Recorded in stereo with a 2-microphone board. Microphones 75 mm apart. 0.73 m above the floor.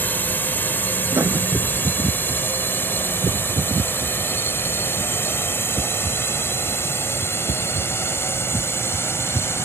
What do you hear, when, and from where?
0.0 s a drone: 25° left (ahead or behind); by 9.7 s 35° left (ahead or behind)
1.1 s writing: 40° right (ahead or behind)